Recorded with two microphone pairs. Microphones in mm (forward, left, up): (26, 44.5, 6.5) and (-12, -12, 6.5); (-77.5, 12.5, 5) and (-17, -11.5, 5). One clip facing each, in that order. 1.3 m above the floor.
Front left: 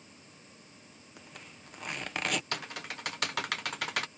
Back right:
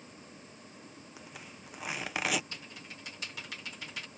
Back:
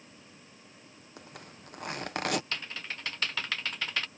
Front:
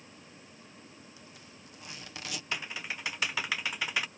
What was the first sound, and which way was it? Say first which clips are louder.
A zipper: front left 1 dB, back 4 dB; 150° left.